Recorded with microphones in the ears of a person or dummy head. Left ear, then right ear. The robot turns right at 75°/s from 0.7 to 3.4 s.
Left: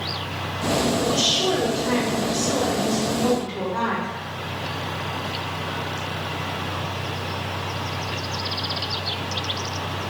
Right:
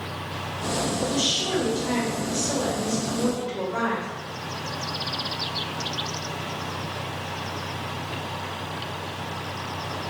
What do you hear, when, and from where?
1.0 s a woman speaking: 75° left, 1.9 m; by 4.1 s 105° right, 1.9 m